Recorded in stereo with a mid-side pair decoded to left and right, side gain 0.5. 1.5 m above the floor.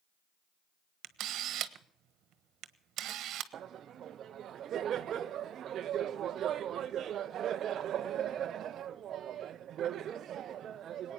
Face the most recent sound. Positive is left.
turn(degrees=-55)